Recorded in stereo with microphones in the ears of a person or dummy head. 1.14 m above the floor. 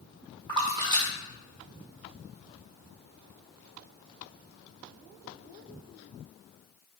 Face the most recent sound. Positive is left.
turn(degrees=-30)  # may be behind; listen again after turning